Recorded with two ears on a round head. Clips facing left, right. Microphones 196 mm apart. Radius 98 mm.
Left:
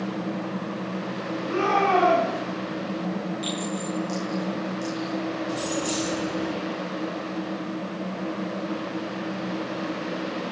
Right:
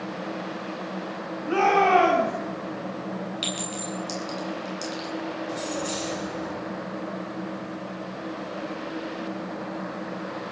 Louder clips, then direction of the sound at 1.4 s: Right 3 dB; 85° right.